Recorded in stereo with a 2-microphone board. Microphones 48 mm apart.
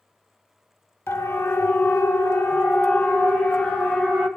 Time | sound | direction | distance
1.1 | a siren | 75° left (ahead or behind) | 3.5 m